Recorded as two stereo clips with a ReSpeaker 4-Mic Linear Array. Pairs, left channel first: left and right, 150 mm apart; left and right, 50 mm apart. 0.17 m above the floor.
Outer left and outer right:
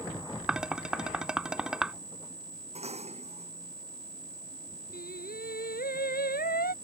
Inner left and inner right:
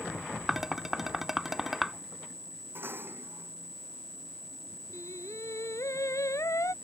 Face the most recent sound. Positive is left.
turn(degrees=80)